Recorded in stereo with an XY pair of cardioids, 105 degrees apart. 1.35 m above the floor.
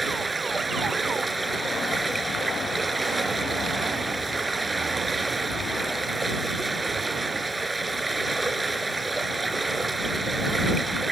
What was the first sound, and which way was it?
Running water, 20° right.